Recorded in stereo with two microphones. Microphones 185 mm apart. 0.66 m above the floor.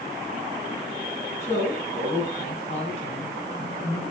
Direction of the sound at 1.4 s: 35° left (ahead or behind).